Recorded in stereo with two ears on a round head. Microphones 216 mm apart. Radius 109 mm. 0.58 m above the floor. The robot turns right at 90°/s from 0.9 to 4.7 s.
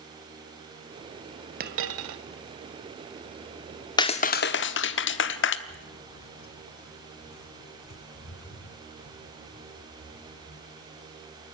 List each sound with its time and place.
1.6 s a dropped coin: 140° right, 1.2 m; by 2.2 s 85° right, 1.2 m
4.0 s a clap: 20° left, 1.0 m; by 5.6 s 85° left, 1.0 m
5.7 s footsteps: 40° left (ahead or behind), 0.7 m; by 11.4 s 65° left (ahead or behind), 4.5 m